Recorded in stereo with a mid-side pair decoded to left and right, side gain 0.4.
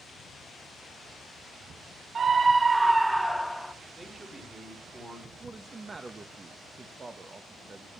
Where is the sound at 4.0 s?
40° right, 5 m.